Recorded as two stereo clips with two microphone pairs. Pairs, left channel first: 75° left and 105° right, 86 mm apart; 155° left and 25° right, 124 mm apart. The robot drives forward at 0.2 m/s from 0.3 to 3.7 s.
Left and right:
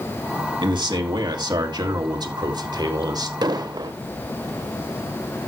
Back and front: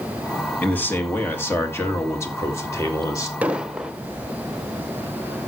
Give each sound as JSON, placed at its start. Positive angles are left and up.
{"t": 0.6, "sound": "a man speaking", "azimuth_deg": -130, "distance_m": 1.8}
{"t": 3.4, "sound": "an explosion", "azimuth_deg": -105, "distance_m": 0.5}